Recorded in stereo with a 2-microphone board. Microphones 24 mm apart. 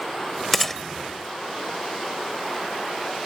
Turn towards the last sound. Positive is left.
turn(degrees=5)  # may be behind; listen again after turning